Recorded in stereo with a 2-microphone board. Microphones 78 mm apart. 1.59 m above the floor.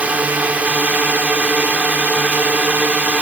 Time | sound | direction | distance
0.0 | a drone | 20° right (ahead or behind) | ?